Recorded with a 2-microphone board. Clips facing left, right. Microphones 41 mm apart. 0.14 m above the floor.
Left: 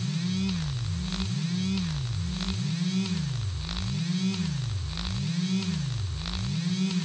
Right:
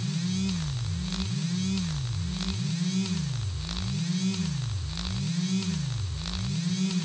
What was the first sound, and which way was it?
Only background noise.